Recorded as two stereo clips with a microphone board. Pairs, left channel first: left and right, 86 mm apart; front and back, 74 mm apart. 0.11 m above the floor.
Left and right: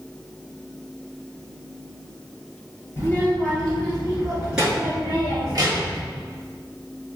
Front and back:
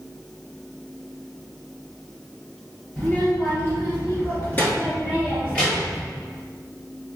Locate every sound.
3.0 s a child speaking: 45° left, 1.7 m; by 6.0 s 80° right, 1.8 m